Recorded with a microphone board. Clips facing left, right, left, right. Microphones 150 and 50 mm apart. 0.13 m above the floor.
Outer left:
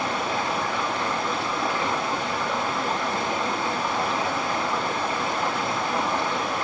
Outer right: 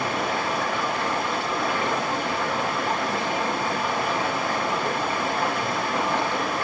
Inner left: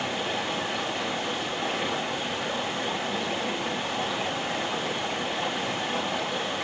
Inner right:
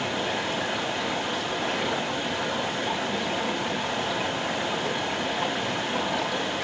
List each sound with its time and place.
0.0 s running water: 85° right, 8.5 m